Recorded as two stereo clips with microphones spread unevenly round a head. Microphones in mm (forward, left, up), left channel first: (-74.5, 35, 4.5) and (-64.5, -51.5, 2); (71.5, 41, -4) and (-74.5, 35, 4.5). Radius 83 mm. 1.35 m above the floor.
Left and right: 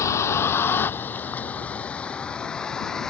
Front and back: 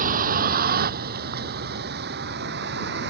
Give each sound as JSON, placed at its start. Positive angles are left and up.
{"t": 0.0, "sound": "a vehicle", "azimuth_deg": 155}